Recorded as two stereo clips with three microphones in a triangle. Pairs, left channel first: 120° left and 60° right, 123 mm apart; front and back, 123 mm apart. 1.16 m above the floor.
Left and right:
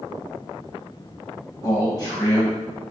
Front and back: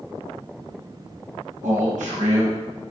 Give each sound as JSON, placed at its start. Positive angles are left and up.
{"t": 1.6, "sound": "a man speaking", "azimuth_deg": 180, "distance_m": 0.8}